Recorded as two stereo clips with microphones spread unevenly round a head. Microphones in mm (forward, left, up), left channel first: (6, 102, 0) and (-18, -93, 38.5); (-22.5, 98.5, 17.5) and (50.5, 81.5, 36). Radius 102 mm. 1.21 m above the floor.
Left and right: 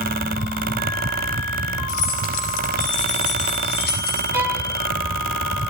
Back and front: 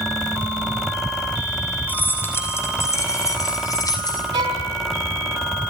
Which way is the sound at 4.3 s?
20° right.